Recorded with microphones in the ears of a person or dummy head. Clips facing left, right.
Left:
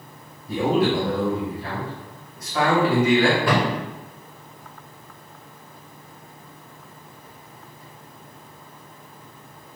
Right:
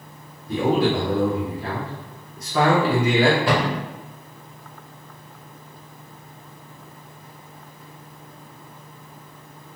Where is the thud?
20° right (ahead or behind), 1.3 m.